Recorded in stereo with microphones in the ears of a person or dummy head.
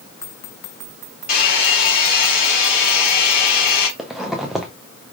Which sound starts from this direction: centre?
A zipper, at 4.0 s.